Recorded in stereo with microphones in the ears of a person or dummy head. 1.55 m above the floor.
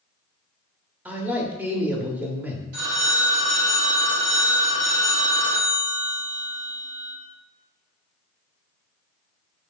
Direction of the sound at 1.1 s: 15° right (ahead or behind).